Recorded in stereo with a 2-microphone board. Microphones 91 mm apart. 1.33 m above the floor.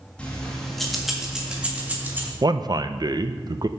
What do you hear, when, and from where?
0.2 s keys jangling: 15° left (ahead or behind), 1.7 m; by 2.3 s 20° right (ahead or behind), 1.9 m
2.4 s a man speaking: 45° right (ahead or behind), 0.5 m